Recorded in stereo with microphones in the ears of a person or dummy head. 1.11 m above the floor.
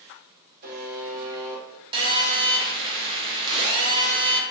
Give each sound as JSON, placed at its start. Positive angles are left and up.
{"t": 0.6, "sound": "a buzzer", "side_deg": -50, "distance_m": 0.7}
{"t": 1.9, "sound": "a phone buzzing", "side_deg": -30, "distance_m": 0.7}